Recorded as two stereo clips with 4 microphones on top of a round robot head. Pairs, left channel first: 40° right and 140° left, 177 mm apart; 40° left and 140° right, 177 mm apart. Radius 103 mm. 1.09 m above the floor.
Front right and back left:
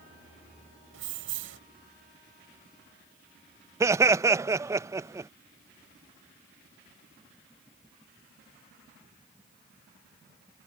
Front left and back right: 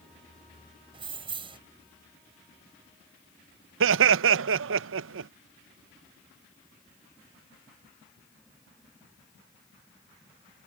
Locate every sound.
0.9 s keys jangling: 155° left
3.8 s laughter: 145° right